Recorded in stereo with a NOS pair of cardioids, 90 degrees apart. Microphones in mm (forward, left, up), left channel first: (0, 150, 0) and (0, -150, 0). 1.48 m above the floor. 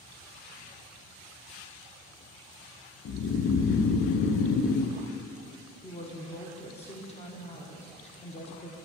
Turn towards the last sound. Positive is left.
turn(degrees=20)